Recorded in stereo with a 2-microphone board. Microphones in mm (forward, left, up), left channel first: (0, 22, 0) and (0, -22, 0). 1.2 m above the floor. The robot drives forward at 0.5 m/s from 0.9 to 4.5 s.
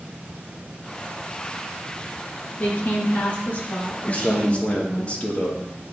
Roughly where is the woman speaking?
Left.